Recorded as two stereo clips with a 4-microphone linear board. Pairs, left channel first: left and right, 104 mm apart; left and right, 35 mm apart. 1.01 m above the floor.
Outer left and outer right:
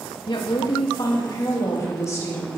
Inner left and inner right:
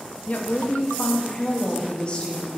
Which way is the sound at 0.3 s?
50° left (ahead or behind).